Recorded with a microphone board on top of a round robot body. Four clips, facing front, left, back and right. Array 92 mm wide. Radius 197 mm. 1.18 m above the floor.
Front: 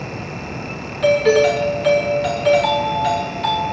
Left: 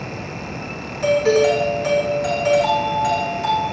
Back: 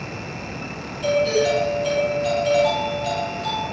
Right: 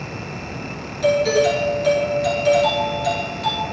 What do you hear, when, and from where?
1.0 s a doorbell: 25° left, 6.5 m